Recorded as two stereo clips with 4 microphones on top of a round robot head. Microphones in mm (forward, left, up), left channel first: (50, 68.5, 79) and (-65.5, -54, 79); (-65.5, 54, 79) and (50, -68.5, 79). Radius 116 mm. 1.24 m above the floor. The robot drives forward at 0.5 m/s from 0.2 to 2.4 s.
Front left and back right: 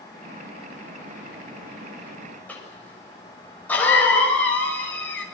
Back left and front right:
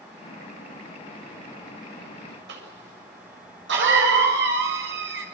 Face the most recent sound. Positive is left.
turn(degrees=-35)